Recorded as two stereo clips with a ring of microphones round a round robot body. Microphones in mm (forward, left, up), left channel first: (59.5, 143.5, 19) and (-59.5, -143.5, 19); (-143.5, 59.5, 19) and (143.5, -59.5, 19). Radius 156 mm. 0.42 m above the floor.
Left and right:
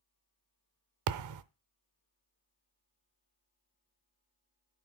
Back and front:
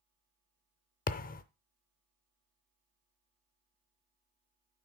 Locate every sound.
1.1 s a thud: 140° right, 0.6 m